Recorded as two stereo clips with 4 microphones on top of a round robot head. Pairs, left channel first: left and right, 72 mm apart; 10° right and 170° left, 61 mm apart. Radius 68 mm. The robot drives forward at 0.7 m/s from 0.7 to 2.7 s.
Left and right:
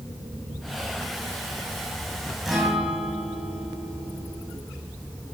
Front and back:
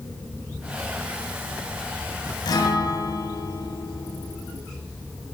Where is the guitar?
Straight ahead, 1.7 m.